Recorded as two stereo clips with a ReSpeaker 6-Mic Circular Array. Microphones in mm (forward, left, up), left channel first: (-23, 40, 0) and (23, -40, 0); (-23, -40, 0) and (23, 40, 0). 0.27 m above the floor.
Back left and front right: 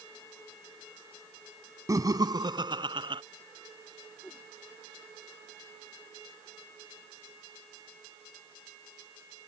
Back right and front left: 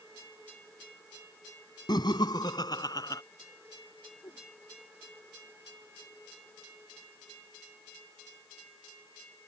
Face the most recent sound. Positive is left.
turn(degrees=-165)